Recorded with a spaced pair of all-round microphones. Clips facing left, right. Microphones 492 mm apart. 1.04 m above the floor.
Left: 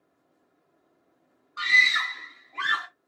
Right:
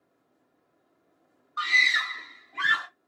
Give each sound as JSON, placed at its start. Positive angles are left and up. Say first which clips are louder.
{"t": 1.6, "sound": "a scream", "louder": "left 1 dB", "side_deg": 45, "distance_m": 0.9}